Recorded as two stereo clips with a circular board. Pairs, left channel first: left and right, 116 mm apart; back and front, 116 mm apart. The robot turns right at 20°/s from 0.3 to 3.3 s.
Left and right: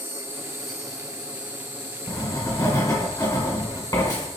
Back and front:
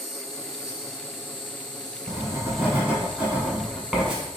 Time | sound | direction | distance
0.0 | an insect | 160° right | 1.9 m
2.1 | writing | 55° left | 1.8 m